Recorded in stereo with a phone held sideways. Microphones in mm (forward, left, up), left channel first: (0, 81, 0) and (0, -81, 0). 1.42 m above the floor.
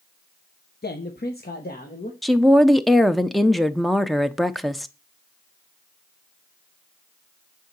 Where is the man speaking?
85° left, 0.9 m; by 2.1 s 60° left (ahead or behind), 1.5 m.